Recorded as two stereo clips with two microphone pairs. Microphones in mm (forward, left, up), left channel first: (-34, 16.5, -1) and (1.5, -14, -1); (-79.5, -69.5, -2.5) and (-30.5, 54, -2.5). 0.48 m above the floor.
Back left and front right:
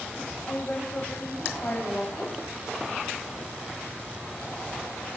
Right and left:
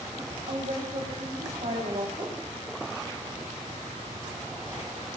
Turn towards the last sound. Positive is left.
turn(degrees=90)